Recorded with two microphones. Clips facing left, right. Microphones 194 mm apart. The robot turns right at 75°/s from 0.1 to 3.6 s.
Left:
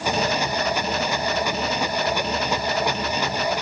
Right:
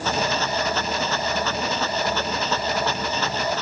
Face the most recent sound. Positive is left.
No sound to turn to.